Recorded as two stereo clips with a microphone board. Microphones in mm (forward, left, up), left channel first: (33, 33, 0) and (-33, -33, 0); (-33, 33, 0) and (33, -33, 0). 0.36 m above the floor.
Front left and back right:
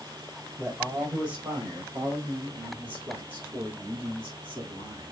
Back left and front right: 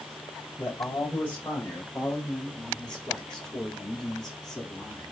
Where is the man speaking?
175° right, 1.7 m; by 5.1 s 135° right, 4.5 m.